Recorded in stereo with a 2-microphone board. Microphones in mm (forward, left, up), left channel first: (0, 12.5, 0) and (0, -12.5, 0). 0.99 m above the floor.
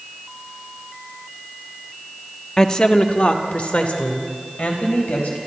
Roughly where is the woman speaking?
Left.